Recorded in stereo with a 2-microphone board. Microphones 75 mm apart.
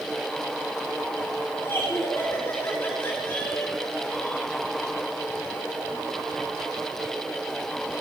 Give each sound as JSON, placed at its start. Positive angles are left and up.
{"t": 1.6, "sound": "laughter", "side_deg": 25, "distance_m": 4.5}